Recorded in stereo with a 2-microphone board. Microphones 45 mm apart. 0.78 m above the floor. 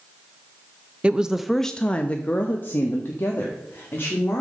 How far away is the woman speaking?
About 0.5 m.